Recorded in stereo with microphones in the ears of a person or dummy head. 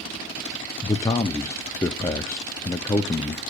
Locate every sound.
0.8 s a man speaking: 5° left (ahead or behind), 0.5 m